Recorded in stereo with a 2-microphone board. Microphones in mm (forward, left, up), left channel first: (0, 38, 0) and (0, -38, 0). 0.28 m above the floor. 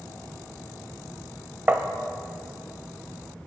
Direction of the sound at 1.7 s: 25° right (ahead or behind).